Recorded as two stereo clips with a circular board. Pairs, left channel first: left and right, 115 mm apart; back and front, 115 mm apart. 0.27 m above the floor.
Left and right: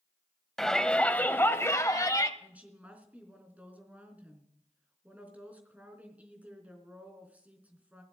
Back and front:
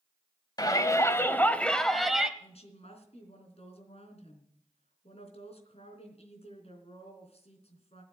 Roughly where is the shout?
Behind.